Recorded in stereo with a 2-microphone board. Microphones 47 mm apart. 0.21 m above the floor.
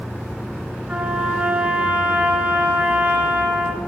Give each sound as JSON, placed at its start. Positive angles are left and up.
{"t": 0.9, "sound": "a trumpet", "side_deg": -30, "distance_m": 1.6}